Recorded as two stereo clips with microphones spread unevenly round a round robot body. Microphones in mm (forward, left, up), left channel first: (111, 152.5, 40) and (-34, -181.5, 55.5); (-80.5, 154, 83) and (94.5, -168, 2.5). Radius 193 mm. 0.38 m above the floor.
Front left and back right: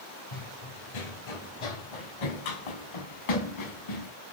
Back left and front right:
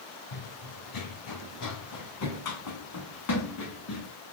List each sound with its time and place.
0.3 s running footsteps: 90° left, 1.3 m; by 4.1 s 65° left, 3 m